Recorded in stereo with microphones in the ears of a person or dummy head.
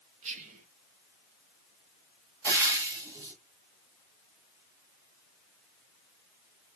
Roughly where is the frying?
Centre.